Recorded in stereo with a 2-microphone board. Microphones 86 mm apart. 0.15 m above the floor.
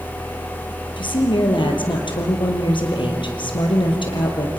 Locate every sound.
1.0 s a woman speaking: 70° left (ahead or behind), 3.5 m